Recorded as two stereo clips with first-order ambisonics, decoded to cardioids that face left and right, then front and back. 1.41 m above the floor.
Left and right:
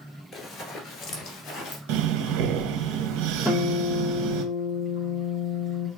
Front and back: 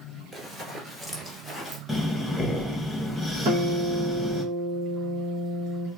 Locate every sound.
0.3 s running footsteps: 130° left, 1.6 m; by 1.8 s 100° left, 2 m
1.9 s breathing: 90° right, 0.8 m
3.5 s a guitar: 170° left, 1.5 m